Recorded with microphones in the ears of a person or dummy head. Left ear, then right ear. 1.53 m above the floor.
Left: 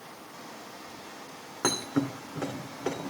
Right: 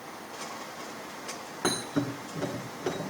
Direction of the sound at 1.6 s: 35° left (ahead or behind).